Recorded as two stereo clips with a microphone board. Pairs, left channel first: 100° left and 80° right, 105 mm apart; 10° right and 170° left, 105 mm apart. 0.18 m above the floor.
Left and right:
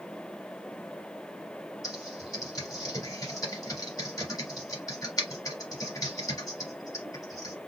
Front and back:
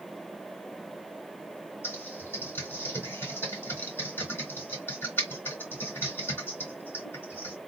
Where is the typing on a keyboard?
55° left, 3 m.